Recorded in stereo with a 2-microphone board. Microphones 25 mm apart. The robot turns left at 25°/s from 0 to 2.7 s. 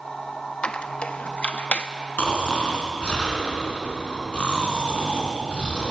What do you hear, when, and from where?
0.6 s a squeak: 40° left (ahead or behind), 0.6 m; by 1.9 s 70° left (ahead or behind), 0.6 m
2.2 s snoring: 65° left (ahead or behind), 2.5 m; by 5.9 s 55° left (ahead or behind), 2.5 m